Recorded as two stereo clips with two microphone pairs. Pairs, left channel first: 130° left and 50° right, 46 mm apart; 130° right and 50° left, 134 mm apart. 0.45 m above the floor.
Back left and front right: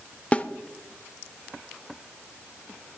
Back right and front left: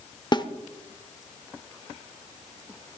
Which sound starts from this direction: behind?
A snare drum, at 0.3 s.